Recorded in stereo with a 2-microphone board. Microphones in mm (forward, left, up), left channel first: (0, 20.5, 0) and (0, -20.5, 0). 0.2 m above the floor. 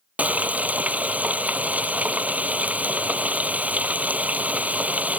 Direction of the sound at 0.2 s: 40° right (ahead or behind).